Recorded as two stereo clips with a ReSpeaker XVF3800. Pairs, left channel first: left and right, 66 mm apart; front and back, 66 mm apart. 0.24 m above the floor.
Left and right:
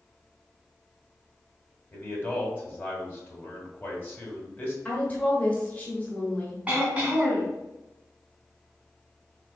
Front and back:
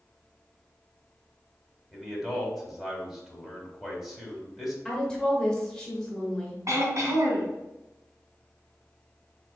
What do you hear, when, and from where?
1.9 s a man speaking: 100° left, 1.4 m
4.8 s a woman speaking: 70° left, 1.3 m
6.7 s throat clearing: 160° right, 1.5 m